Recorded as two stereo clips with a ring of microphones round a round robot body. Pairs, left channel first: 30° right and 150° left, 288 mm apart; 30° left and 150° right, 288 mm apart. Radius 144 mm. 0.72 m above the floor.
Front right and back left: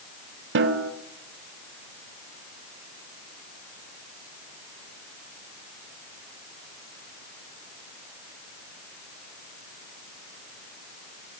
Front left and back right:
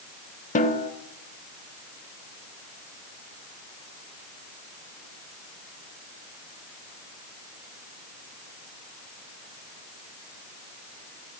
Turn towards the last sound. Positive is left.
turn(degrees=95)